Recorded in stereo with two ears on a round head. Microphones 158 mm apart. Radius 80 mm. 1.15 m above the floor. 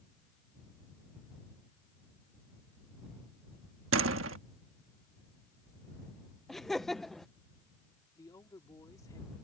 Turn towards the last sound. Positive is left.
turn(degrees=20)  # may be behind; listen again after turning